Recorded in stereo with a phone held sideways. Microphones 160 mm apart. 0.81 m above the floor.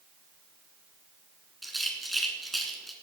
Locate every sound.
1.6 s a rattle: centre (ahead or behind), 2.5 m